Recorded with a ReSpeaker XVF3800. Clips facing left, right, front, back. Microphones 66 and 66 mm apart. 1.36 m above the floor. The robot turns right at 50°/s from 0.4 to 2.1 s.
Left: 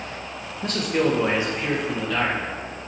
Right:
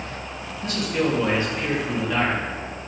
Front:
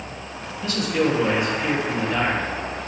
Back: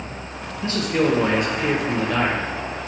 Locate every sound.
0.6 s a man speaking: 120° left, 1.3 m; by 2.5 s 165° right, 1.3 m